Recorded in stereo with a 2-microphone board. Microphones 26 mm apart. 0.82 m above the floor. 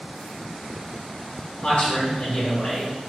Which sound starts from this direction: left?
A man speaking, at 1.6 s.